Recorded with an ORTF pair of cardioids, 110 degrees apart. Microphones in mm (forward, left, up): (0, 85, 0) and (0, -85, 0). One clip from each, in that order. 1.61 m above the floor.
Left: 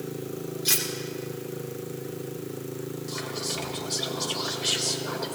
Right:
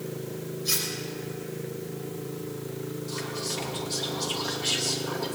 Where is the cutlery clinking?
60° left, 3 m.